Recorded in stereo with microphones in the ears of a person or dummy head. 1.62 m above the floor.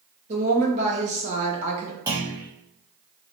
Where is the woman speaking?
35° right (ahead or behind), 1.7 m.